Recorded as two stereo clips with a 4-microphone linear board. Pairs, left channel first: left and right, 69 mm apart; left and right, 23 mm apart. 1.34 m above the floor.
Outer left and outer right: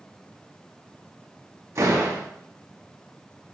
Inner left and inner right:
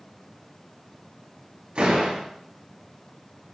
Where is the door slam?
50° right (ahead or behind), 6.5 m.